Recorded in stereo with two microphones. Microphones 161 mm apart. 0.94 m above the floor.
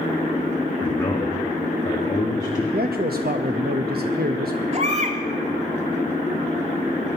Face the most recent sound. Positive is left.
turn(degrees=-45)  # may be behind; listen again after turning